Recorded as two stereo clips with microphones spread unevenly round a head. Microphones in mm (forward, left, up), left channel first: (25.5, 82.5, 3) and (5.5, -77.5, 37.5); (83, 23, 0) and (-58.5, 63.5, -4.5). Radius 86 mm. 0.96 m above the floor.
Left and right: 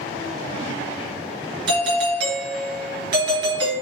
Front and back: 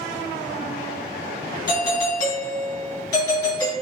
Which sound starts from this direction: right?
A doorbell, at 1.7 s.